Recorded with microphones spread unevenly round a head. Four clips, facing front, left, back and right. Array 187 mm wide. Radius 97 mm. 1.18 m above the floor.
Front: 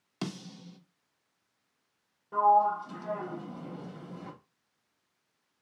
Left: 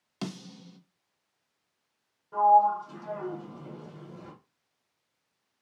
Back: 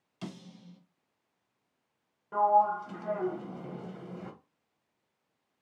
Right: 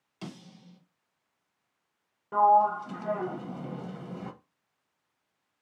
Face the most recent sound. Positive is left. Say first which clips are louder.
# left 1 dB, front 1 dB
turn(degrees=-85)